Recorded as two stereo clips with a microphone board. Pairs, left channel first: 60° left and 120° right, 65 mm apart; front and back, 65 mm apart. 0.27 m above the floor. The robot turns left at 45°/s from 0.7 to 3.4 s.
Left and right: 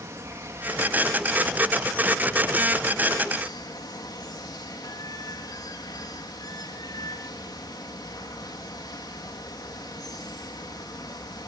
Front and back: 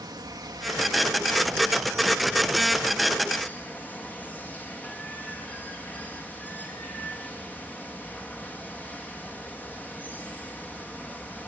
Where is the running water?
170° right, 6.5 m; by 11.5 s 65° left, 6.5 m.